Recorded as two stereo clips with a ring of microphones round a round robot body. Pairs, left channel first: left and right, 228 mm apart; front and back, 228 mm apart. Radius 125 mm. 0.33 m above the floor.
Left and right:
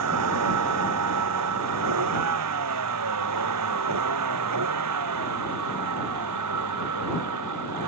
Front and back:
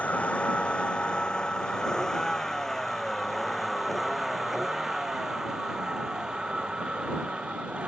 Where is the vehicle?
85° right; by 7.9 s 95° right.